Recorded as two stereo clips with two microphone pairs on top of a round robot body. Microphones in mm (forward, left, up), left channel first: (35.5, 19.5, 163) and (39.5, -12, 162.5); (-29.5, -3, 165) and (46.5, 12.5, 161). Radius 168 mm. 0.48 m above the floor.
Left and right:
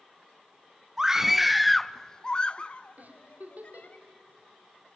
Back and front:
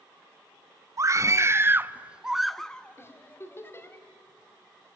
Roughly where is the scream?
Ahead.